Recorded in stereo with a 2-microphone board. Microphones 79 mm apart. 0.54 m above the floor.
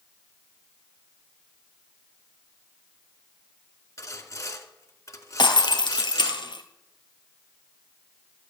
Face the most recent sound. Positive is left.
turn(degrees=75)  # may be behind; listen again after turning